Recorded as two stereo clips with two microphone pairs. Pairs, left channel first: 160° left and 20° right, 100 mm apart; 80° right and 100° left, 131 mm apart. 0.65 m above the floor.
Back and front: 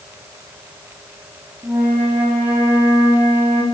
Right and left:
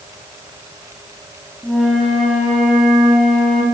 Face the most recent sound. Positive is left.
turn(degrees=15)